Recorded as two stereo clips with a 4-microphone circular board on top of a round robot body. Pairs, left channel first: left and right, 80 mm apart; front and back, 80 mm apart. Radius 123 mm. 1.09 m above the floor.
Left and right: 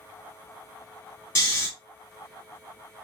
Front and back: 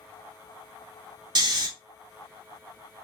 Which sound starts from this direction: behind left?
Snoring, at 1.4 s.